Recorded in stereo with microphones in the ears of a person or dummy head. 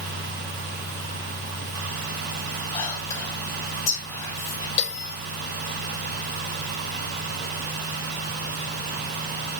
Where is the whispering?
15° left (ahead or behind), 5.5 m.